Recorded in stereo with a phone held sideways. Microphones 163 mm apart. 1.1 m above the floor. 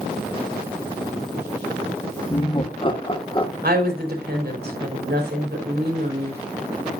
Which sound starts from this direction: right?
A woman speaking, at 3.6 s.